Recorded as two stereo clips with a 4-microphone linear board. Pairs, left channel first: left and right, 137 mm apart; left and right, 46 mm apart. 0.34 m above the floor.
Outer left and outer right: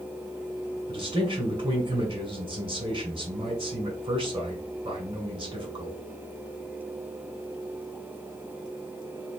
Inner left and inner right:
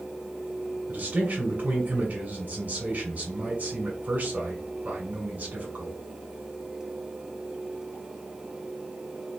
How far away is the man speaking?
About 1.9 m.